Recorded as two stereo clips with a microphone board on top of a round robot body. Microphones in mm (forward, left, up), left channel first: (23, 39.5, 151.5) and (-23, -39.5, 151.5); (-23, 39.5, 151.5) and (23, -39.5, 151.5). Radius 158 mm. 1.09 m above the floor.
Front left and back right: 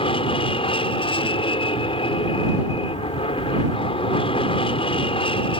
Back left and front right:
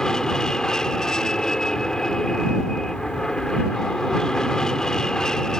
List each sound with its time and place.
0.0 s an aircraft: 35° left